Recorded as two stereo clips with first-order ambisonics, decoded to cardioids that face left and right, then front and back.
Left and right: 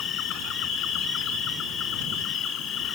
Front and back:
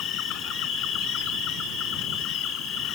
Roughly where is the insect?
Ahead left.